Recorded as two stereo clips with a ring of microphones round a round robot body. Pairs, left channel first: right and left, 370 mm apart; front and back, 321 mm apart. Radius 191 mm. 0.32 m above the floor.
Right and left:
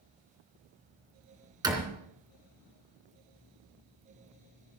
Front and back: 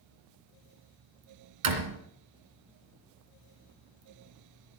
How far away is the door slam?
About 2.5 m.